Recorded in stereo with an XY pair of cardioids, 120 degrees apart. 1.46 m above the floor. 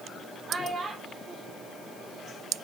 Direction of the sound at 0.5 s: 25° right.